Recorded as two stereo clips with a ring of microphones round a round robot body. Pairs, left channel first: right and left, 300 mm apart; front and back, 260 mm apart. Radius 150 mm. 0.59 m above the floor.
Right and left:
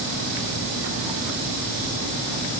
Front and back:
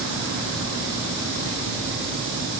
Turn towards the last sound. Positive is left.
No sound to turn to.